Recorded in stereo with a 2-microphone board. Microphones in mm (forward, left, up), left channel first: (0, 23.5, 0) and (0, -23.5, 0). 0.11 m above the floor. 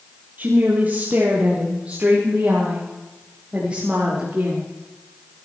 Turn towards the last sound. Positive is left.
turn(degrees=-20)  # may be behind; listen again after turning